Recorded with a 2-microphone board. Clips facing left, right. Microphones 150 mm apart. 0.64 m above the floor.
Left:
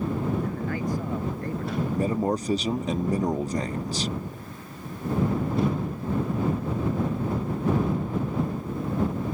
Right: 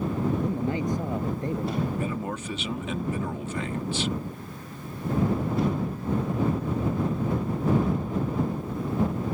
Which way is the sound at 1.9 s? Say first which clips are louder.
Left 5 dB; 40° left (ahead or behind).